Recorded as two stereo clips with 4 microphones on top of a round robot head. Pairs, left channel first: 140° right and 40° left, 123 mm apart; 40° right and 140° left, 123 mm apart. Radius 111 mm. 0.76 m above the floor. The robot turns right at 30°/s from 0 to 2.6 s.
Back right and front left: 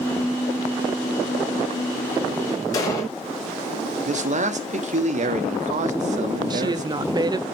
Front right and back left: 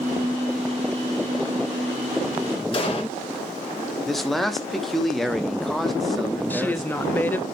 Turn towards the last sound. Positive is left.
turn(degrees=25)